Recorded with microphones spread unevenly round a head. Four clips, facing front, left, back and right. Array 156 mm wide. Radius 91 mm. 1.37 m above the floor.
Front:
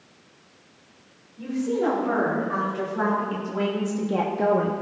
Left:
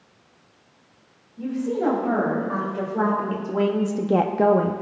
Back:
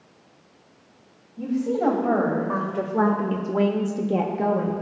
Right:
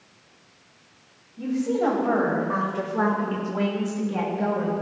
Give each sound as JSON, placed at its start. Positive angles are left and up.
{"t": 1.4, "sound": "a woman speaking", "azimuth_deg": 180, "distance_m": 3.5}